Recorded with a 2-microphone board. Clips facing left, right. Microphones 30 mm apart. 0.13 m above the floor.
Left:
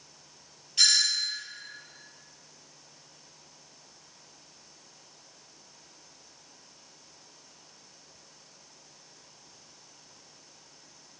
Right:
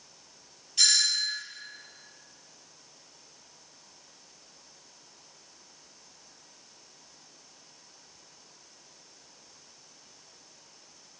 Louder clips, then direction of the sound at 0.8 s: Left 1 dB; 15° left (ahead or behind).